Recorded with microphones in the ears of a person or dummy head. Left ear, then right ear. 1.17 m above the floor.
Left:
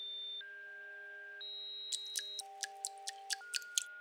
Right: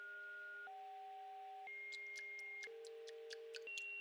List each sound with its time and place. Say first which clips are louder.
1.9 s dripping: left 7 dB; 35° left (ahead or behind)